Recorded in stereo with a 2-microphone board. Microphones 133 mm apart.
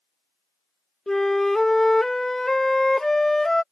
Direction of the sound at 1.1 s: 5° left (ahead or behind).